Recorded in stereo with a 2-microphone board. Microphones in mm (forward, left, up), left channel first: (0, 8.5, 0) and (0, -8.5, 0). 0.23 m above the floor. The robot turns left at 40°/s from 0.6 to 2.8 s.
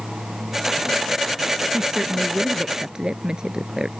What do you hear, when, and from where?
1.7 s a woman speaking: 85° right; by 3.9 s 130° right